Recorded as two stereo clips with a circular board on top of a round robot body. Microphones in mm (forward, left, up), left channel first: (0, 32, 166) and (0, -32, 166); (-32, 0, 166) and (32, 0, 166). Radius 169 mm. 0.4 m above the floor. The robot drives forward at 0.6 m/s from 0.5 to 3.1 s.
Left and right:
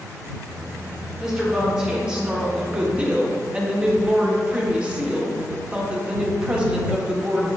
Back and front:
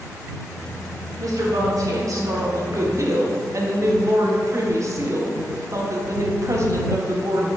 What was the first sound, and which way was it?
A woman speaking, 15° right.